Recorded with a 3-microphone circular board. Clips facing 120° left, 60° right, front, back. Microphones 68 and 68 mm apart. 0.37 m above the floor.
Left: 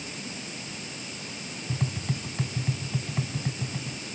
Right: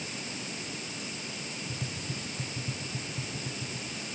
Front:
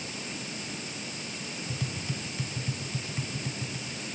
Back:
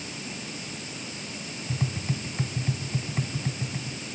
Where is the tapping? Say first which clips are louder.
Left 10 dB, back 6 dB; 130° left, 1.6 m.